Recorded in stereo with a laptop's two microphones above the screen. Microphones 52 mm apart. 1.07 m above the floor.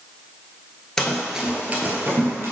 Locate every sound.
1.0 s running footsteps: 15° left (ahead or behind), 1.1 m; by 2.5 s 55° right (ahead or behind), 1.9 m